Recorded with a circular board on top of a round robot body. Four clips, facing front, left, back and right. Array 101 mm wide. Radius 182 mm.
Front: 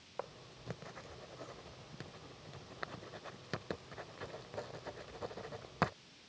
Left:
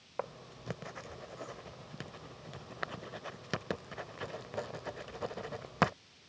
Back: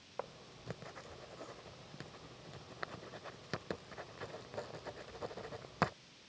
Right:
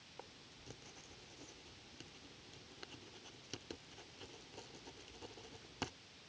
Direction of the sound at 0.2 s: 85° left.